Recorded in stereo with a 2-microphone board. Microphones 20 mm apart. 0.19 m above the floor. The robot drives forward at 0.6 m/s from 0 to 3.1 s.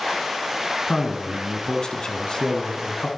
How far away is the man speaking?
About 1.6 m.